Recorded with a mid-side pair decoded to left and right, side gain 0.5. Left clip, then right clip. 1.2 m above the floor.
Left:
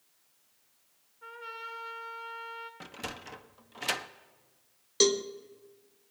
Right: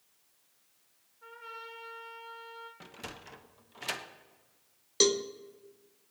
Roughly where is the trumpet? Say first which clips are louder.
Left 3 dB; ahead.